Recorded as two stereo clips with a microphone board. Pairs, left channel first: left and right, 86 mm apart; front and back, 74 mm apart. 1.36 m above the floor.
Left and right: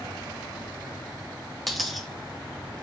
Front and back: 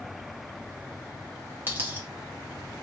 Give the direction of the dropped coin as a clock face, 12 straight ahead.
6 o'clock.